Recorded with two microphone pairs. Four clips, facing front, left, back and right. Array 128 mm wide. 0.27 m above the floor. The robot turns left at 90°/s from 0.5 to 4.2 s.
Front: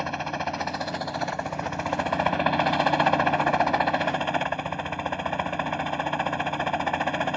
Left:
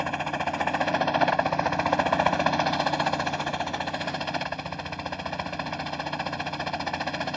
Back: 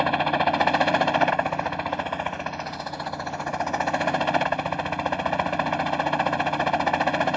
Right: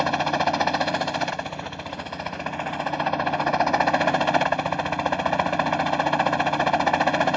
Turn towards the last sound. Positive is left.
turn(degrees=-115)